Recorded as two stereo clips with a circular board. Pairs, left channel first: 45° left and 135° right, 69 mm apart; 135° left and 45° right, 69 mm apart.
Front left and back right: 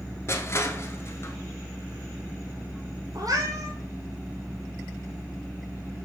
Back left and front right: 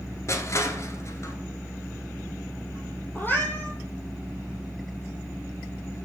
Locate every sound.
0.3 s crushing: 95° left, 1.1 m
3.1 s a cat meowing: 165° right, 1.7 m